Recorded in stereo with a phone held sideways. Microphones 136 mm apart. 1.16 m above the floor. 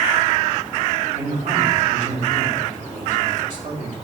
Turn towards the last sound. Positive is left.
turn(degrees=-80)